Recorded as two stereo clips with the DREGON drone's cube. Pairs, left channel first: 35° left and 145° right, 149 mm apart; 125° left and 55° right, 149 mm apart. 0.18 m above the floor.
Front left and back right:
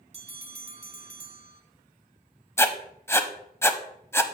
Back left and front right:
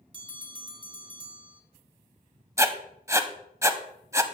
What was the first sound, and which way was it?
A bell, 105° right.